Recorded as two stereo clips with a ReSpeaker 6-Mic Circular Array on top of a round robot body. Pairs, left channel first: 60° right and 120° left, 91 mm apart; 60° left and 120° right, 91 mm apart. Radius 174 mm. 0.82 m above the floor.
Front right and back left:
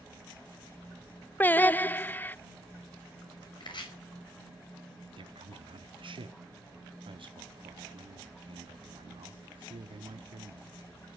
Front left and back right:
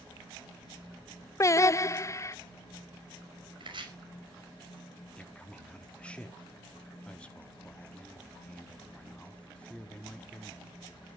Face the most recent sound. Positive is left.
turn(degrees=135)